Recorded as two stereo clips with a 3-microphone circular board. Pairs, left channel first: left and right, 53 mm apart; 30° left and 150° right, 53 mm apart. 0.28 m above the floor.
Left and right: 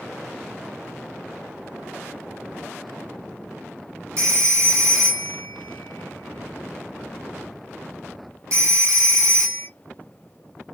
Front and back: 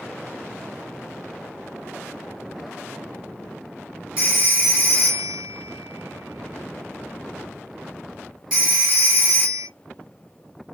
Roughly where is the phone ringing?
Right.